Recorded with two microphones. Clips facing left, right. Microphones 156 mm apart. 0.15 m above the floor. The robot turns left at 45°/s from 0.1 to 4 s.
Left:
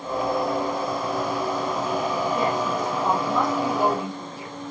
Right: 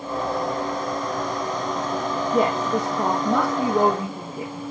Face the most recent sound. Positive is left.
turn(degrees=-130)